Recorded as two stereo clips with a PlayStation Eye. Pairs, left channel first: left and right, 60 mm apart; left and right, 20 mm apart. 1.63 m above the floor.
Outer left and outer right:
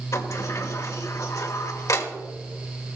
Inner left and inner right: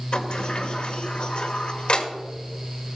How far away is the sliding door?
About 1.3 m.